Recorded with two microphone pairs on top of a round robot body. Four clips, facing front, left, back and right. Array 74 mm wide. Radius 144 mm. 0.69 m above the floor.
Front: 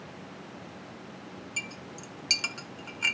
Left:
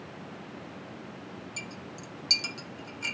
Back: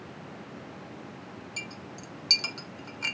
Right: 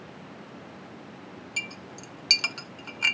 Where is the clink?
90° right, 0.6 m.